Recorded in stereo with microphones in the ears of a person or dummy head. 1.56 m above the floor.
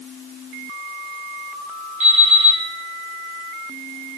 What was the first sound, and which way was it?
An alarm clock, 40° right (ahead or behind).